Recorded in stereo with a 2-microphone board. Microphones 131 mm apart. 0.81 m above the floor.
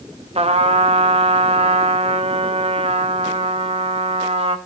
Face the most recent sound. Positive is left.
turn(degrees=-50)  # may be behind; listen again after turning